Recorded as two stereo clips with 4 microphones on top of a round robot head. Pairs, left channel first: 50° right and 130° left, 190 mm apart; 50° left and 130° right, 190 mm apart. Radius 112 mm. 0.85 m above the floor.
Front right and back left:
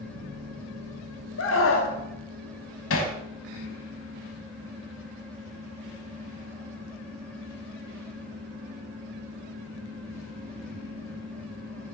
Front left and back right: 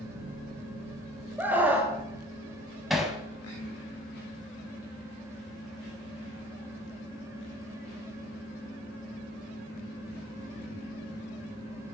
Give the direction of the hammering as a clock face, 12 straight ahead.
1 o'clock.